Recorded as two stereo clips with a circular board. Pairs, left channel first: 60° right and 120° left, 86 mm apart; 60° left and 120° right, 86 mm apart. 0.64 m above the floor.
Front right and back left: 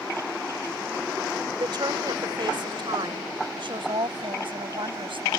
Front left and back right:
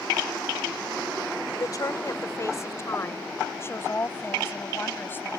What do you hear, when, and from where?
1.6 s a woman speaking: 95° left; by 5.4 s 125° left